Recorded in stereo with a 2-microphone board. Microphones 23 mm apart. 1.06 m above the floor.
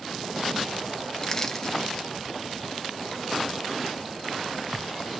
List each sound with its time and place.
1.2 s crushing: 25° left (ahead or behind), 1.2 m